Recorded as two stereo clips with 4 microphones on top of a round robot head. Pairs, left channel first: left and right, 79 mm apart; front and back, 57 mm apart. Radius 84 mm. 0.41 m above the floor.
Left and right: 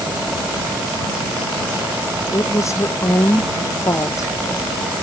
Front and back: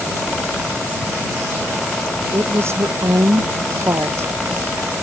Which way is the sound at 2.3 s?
140° left.